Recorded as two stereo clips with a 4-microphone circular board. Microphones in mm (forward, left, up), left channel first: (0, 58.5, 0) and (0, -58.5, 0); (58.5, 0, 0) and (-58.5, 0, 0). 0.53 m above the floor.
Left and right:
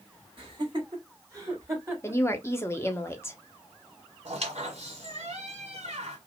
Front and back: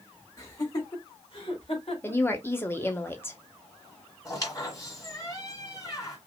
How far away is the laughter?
About 2 m.